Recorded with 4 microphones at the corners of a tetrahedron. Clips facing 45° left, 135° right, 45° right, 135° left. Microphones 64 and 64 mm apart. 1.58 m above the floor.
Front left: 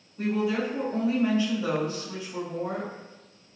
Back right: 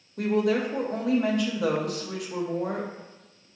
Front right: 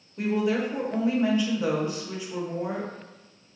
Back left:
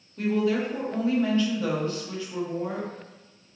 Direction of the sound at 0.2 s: 120° right.